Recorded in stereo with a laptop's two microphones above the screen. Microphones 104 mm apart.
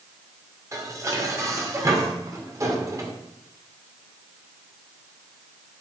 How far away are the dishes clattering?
About 2.5 m.